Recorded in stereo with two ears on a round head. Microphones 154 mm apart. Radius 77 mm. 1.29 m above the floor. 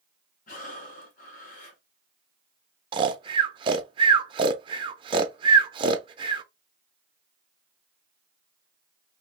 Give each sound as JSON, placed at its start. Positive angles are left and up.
{"t": 0.5, "sound": "breathing", "side_deg": 50, "distance_m": 1.4}
{"t": 2.9, "sound": "snoring", "side_deg": -30, "distance_m": 0.5}